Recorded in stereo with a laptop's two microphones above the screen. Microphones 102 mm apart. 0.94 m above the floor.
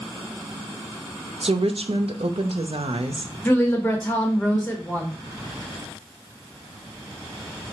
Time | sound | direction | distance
1.4 | a woman speaking | 70° right (ahead or behind) | 0.7 m
3.5 | a woman speaking | 20° left (ahead or behind) | 0.9 m